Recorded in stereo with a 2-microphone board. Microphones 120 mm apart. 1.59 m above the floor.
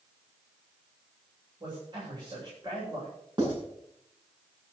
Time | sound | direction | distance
1.6 | a man speaking | 40° right (ahead or behind) | 7.5 m
3.4 | writing | 40° right (ahead or behind) | 7 m